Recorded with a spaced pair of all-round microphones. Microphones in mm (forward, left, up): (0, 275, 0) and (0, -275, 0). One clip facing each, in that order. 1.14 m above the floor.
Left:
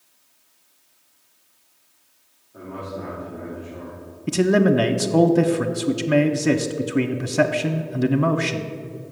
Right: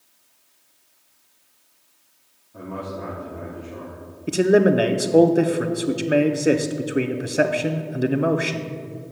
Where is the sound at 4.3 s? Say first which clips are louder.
Right 1 dB; 25° left (ahead or behind), 0.5 m.